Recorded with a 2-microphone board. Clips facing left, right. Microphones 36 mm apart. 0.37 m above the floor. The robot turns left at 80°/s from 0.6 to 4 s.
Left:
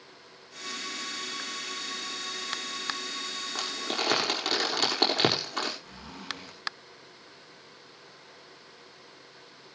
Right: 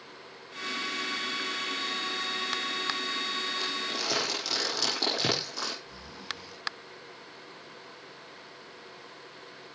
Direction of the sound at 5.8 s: 55° left (ahead or behind).